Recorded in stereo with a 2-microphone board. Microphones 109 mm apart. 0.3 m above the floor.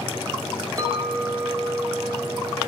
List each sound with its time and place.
0.8 s a clink: 35° right (ahead or behind), 0.7 m